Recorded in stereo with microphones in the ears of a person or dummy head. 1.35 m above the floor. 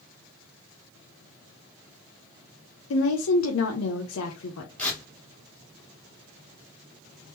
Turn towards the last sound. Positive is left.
turn(degrees=5)  # may be behind; listen again after turning